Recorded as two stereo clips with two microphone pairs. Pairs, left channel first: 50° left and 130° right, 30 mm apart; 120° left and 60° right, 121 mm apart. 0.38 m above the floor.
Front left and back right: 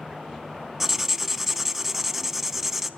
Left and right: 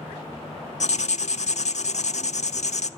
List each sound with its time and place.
0.8 s writing: 140° left, 0.5 m